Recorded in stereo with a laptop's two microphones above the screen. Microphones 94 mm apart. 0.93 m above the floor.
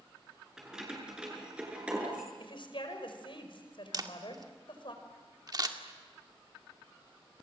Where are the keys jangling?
5° right (ahead or behind), 8 m; by 2.3 s 15° right (ahead or behind), 10 m.